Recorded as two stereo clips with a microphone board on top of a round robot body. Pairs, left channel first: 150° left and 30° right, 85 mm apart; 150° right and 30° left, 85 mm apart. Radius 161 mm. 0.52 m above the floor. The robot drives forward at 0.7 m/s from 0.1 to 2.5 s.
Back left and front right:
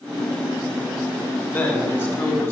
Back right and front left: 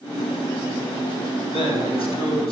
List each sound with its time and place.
1.5 s a man speaking: 145° right, 5 m